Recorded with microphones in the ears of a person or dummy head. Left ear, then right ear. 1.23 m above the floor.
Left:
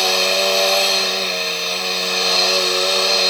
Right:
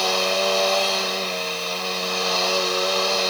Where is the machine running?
20° left (ahead or behind).